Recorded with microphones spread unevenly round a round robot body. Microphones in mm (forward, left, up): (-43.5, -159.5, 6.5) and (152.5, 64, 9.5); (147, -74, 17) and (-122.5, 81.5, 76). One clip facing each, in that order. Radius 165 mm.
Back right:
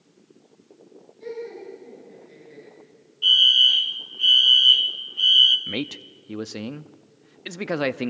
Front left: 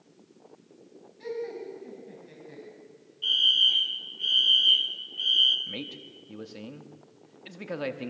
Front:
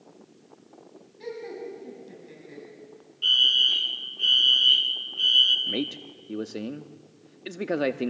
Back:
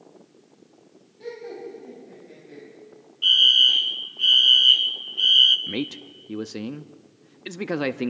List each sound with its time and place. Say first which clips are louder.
1.2 s laughter: even, back 1 dB; 40° left, 6 m; by 2.6 s 50° left, 6 m
3.2 s a fire alarm: back right 5 dB, back 2 dB; 120° right, 1.4 m
5.7 s a man speaking: back right 9 dB, back 1 dB; 130° right, 0.8 m